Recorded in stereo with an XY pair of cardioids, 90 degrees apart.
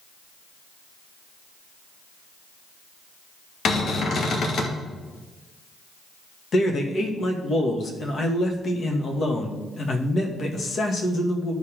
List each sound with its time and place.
3.6 s a cupboard door: 60° left, 1.9 m
6.5 s a man speaking: 50° left, 2 m